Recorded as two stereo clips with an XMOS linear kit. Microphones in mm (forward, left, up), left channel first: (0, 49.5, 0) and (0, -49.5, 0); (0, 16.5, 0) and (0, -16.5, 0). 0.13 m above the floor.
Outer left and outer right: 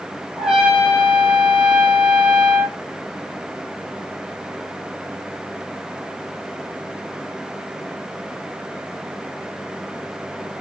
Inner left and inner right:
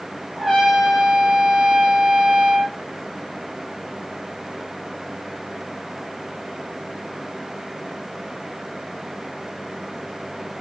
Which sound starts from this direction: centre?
A trumpet, at 0.4 s.